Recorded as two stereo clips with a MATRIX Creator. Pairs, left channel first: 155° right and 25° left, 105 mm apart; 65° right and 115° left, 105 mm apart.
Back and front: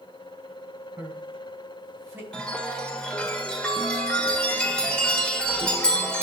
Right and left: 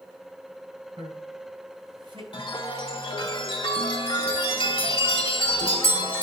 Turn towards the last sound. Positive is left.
turn(degrees=-80)